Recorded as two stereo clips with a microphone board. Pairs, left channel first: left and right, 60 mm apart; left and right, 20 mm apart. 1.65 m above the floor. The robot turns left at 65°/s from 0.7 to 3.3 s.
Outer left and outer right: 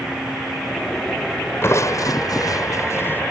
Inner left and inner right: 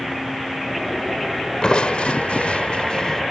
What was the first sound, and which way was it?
Crushing, 135° left.